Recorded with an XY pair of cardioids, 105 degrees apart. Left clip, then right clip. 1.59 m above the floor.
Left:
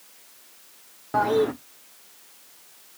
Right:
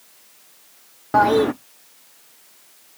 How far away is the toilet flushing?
About 0.7 m.